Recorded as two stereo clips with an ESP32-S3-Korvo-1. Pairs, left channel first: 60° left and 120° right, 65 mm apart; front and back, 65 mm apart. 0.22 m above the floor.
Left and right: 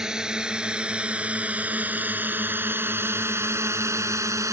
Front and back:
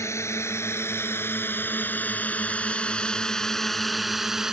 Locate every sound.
0.0 s a drone: 45° right; by 4.5 s 100° right